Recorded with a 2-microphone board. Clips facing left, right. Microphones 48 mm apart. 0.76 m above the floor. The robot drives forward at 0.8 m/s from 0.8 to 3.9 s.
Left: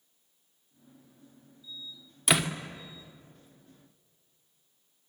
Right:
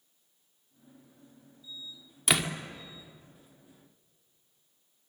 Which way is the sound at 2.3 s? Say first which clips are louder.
Left 2 dB; centre (ahead or behind).